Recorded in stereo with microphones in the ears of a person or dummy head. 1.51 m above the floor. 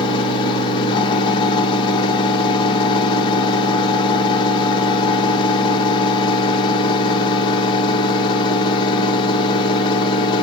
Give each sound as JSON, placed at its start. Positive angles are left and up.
{"t": 0.0, "sound": "a fan", "side_deg": 25, "distance_m": 0.8}